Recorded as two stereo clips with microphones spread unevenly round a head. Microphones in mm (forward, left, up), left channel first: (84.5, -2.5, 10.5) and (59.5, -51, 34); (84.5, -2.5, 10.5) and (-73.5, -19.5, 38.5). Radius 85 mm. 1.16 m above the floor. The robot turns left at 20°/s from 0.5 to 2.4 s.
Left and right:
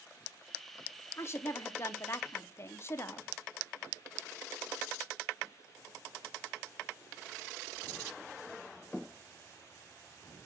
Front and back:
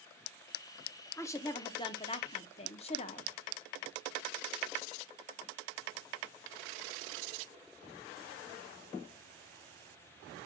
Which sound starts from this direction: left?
A woman speaking, at 1.2 s.